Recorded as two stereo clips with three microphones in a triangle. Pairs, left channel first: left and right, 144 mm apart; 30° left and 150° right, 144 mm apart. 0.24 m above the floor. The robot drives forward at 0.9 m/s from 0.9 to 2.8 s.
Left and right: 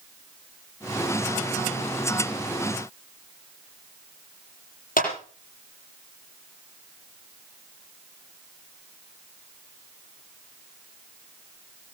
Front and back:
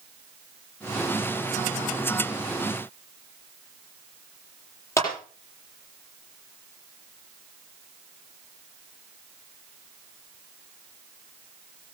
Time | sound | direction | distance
5.0 | a clap | 100° left | 7 m